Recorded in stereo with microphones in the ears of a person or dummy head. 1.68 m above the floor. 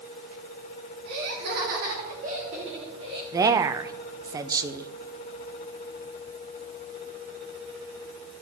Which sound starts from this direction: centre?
A woman speaking, at 3.3 s.